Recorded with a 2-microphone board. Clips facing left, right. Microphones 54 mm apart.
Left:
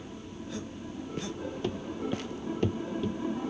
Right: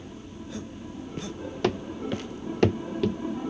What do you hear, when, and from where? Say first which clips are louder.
1.6 s running footsteps: right 6 dB; 85° right; by 3.4 s 80° right